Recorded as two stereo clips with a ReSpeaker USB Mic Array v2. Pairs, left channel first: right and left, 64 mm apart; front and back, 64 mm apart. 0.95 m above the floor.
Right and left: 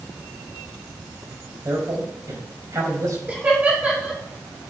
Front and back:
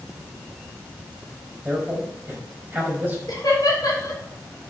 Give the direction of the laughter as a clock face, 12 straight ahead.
11 o'clock.